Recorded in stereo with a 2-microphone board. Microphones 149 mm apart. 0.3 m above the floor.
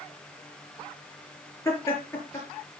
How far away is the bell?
I don't hear a bell.